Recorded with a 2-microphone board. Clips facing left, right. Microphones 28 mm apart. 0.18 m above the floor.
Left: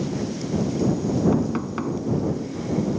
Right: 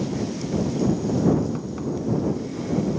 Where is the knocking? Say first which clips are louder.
Left 1 dB; 40° left (ahead or behind).